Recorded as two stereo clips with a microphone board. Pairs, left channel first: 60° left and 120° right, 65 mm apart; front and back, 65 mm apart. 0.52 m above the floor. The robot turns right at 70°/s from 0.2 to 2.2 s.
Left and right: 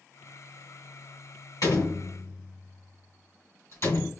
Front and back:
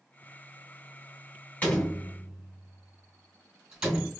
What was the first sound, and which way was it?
A door slam, 60° left.